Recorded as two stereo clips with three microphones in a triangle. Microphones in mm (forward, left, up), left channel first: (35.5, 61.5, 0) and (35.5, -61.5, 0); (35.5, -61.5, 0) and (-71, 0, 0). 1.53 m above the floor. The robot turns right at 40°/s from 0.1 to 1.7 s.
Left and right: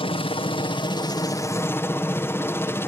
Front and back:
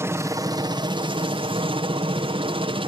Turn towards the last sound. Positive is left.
turn(degrees=155)